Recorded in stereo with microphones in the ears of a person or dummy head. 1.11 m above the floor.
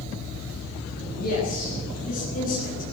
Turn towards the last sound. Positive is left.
turn(degrees=50)  # may be behind; listen again after turning